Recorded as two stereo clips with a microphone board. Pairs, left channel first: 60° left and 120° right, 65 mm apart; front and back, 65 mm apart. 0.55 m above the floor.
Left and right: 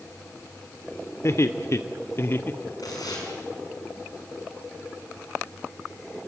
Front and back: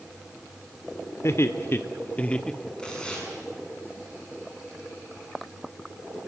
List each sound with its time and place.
1.2 s laughter: 30° left, 1.5 m; by 2.7 s 80° left, 0.9 m
2.8 s tearing paper: 75° left, 6 m